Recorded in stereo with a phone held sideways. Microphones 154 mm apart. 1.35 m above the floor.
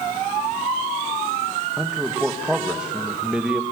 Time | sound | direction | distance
1.8 | a man speaking | 5° right (ahead or behind) | 1.8 m